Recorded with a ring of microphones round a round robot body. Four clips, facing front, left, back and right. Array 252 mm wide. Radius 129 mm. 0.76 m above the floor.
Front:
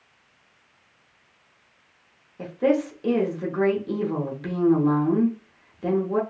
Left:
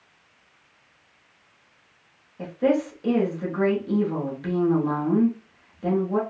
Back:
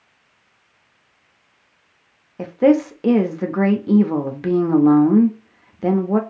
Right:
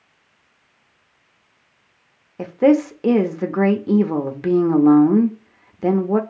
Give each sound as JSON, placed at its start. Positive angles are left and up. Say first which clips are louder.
{"t": 2.4, "sound": "a woman speaking", "louder": "right 7 dB, back 7 dB", "azimuth_deg": -130, "distance_m": 0.7}